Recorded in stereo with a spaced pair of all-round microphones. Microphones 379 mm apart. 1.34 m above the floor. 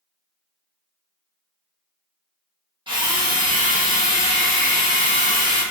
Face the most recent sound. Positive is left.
turn(degrees=-15)  # may be behind; listen again after turning